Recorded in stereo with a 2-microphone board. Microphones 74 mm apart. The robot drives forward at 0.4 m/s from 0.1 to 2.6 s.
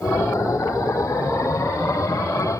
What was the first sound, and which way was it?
Only background noise.